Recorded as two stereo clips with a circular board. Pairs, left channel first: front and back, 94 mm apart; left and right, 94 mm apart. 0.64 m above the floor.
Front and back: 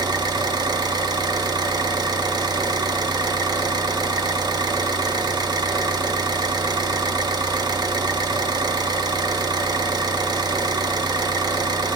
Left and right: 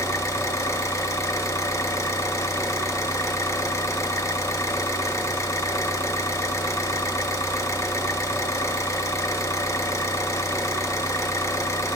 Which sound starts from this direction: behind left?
An engine running, at 0.0 s.